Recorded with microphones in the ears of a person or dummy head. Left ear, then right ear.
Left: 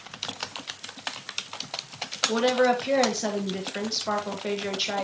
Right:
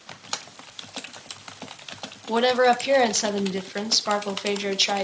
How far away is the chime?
No chime in this recording.